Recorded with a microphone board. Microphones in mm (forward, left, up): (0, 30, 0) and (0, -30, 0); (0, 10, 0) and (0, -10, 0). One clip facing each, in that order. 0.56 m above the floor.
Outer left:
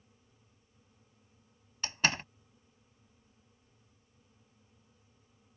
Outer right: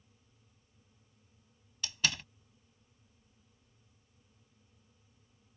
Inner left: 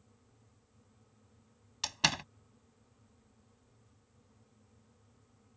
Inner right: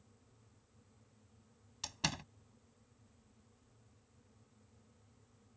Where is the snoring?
No snoring in this recording.